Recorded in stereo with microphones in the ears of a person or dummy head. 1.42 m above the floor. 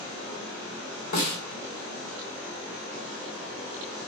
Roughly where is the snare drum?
Left.